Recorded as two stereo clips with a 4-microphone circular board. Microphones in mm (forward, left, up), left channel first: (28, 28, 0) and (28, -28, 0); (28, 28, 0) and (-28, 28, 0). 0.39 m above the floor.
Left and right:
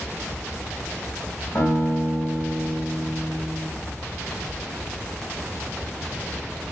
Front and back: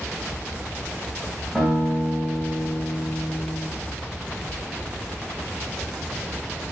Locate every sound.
1.6 s a guitar: 70° left, 1.4 m